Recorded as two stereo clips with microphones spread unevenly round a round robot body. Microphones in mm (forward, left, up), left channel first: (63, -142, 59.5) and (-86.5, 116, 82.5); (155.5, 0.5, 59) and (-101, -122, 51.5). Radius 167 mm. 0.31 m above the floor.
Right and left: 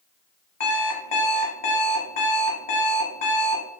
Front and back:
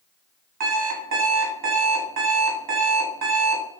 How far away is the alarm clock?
About 1.1 m.